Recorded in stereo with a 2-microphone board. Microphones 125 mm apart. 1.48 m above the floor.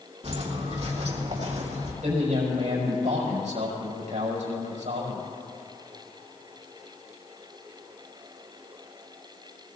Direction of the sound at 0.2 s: 55° right (ahead or behind).